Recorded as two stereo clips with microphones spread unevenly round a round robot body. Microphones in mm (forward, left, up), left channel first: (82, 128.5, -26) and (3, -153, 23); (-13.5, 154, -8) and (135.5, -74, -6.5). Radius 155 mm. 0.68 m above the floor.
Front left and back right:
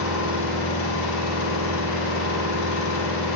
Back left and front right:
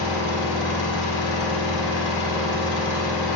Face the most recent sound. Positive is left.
turn(degrees=120)